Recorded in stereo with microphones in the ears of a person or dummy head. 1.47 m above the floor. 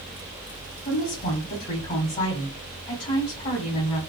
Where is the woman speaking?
35° left (ahead or behind), 1.5 m.